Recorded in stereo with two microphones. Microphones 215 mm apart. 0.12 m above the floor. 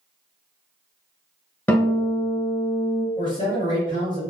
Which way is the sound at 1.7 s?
10° left (ahead or behind).